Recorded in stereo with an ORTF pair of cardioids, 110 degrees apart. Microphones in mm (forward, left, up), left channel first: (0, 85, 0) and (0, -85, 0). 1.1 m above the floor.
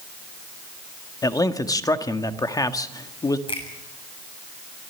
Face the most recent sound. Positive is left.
turn(degrees=30)